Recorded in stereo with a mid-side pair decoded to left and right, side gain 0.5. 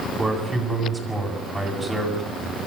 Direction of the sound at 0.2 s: 10° right.